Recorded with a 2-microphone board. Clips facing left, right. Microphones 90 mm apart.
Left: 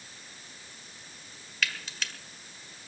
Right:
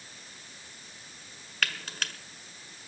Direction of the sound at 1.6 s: 55° right (ahead or behind).